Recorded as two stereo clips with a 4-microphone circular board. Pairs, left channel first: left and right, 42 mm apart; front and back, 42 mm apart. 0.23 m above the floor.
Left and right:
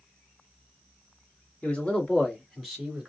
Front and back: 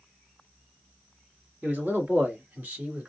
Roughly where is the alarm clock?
I don't hear an alarm clock.